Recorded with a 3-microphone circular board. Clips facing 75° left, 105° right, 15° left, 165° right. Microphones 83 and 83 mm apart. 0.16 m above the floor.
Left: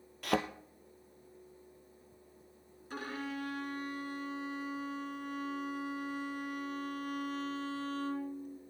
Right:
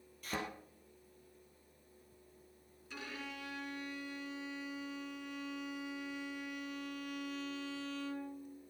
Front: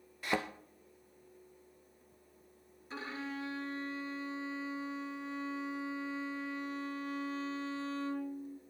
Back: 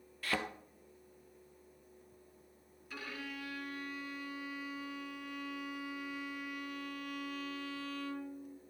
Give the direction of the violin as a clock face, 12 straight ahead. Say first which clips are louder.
Left 7 dB, front 4 dB; 10 o'clock.